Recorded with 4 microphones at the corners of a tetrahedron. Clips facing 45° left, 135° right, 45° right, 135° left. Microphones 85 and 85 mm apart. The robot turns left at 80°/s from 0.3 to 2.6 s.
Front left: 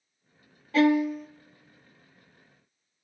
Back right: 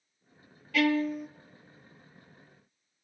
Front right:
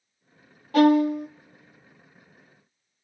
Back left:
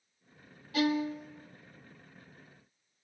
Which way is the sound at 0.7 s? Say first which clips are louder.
Front left 5 dB, front right 12 dB; 10° right.